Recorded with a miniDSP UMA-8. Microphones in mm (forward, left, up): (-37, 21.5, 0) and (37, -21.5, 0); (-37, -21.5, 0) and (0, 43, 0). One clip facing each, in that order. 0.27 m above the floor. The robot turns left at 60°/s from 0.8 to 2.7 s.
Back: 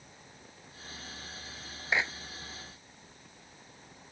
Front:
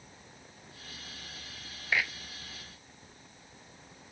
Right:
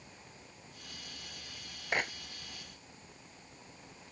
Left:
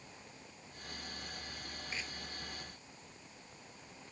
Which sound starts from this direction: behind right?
A clap, at 1.9 s.